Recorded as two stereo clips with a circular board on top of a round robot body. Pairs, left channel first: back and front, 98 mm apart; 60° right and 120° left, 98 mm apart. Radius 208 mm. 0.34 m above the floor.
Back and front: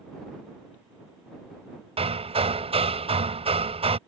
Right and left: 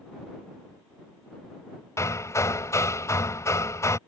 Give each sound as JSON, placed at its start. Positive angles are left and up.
{"t": 2.0, "sound": "hammering", "azimuth_deg": 0}